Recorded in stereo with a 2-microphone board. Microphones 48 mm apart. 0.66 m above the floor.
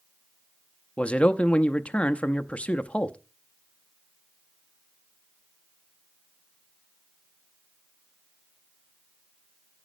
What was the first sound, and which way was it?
A man speaking, 20° left (ahead or behind).